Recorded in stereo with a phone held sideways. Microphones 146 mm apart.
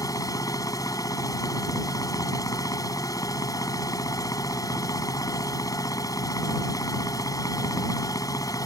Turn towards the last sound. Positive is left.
turn(degrees=25)  # may be behind; listen again after turning